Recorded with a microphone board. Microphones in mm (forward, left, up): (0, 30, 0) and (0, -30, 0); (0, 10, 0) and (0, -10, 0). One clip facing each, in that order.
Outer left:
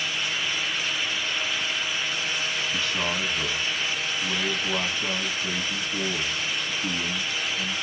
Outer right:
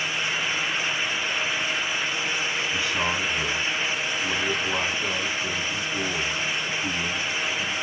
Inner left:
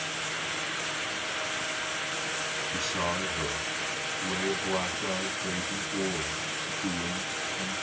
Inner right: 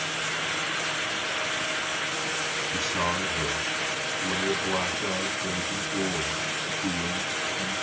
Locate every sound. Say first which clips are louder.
2.7 s a man speaking: outer right 2 dB, inner right 3 dB; 15° right (ahead or behind), 2.5 m